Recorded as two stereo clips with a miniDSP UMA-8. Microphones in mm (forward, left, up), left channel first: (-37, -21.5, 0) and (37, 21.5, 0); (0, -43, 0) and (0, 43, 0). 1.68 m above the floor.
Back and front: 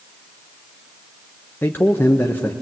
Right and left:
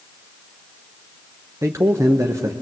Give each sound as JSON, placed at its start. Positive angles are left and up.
{"t": 1.6, "sound": "a man speaking", "azimuth_deg": 145, "distance_m": 1.0}